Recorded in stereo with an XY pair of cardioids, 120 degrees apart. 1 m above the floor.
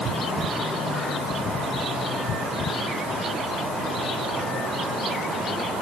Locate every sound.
Only background noise.